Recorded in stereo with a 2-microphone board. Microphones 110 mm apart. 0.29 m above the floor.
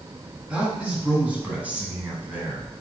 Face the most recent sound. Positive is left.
turn(degrees=-20)  # may be behind; listen again after turning